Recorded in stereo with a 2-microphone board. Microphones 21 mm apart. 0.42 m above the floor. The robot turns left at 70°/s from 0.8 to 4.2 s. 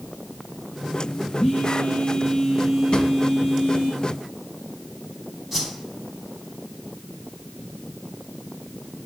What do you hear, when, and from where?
1.4 s a phone buzzing: 110° left, 4 m; by 3.9 s 70° right, 4 m
2.9 s a drawer: 55° left (ahead or behind), 1.6 m; by 3.1 s 45° left (ahead or behind), 1.6 m
5.5 s a whoosh: 10° right (ahead or behind), 3.5 m